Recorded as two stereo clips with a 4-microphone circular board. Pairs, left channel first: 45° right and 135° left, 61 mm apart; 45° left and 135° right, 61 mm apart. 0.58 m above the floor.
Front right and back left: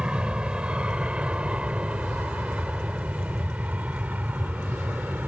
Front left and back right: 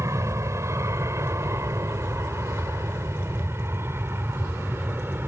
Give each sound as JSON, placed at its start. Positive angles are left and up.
{"t": 0.0, "sound": "an aircraft", "azimuth_deg": -155}